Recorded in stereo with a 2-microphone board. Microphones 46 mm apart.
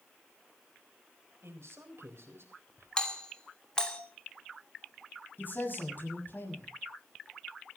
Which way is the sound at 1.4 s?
75° right (ahead or behind).